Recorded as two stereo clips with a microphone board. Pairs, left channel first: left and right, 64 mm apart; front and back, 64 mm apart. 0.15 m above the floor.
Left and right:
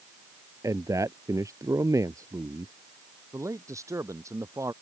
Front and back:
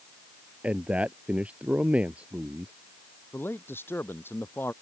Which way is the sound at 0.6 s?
115° right.